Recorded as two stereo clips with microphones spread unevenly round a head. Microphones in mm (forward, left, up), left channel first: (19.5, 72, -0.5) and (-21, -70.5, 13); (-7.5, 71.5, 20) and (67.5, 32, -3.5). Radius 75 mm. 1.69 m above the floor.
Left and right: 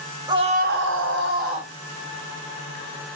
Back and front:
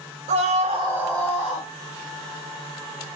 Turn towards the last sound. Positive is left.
turn(degrees=-150)